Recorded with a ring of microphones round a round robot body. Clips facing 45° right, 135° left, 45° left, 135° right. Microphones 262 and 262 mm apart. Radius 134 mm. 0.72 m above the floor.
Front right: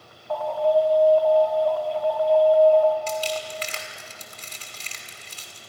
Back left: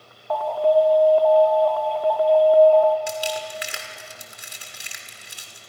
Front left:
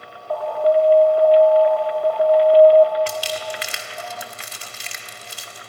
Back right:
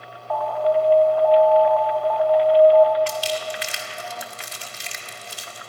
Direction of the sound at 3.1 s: 55° left.